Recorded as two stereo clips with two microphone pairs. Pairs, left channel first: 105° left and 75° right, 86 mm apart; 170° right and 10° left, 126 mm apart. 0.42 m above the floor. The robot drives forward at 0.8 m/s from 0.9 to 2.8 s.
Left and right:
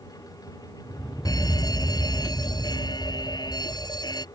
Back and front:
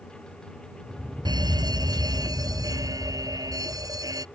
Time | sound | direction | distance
1.2 | a fire alarm | 65° left | ?